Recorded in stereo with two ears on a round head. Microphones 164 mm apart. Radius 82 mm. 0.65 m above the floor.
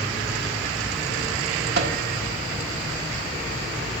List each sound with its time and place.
1.8 s a microwave: 60° right (ahead or behind), 1.6 m